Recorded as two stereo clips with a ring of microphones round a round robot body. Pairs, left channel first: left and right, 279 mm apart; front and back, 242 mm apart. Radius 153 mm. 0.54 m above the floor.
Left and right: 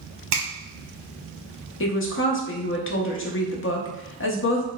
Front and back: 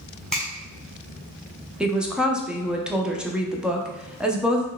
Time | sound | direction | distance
0.3 | a finger snap | 85° right | 1.5 m
1.8 | a woman speaking | 95° left | 0.7 m